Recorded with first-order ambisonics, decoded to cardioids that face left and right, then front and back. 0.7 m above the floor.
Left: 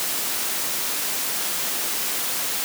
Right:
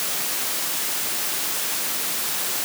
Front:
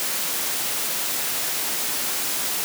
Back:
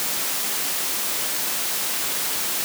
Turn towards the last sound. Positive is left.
No sound to turn to.